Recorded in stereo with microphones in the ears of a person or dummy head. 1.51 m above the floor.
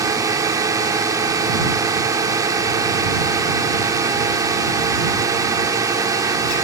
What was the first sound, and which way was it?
A drone, 20° right (ahead or behind).